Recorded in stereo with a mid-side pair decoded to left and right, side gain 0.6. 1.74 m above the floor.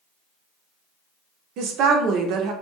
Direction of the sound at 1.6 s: 60° right.